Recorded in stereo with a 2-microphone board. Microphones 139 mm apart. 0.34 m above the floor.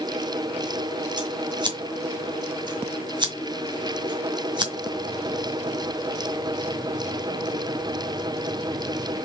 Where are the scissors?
30° right (ahead or behind), 1.7 m.